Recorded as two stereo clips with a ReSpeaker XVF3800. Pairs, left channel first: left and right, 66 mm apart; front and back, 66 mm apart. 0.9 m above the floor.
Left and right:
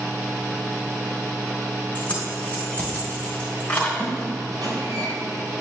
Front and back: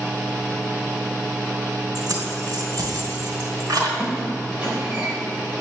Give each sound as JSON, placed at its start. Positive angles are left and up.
{"t": 1.9, "sound": "keys jangling", "azimuth_deg": 160, "distance_m": 3.0}
{"t": 4.0, "sound": "a squeak", "azimuth_deg": -105, "distance_m": 3.0}